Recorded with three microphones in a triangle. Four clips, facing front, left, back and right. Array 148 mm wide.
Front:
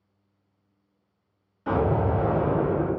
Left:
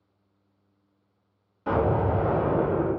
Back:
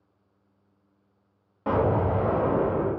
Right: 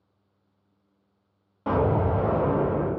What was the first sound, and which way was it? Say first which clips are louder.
An explosion: even, even; 140° right.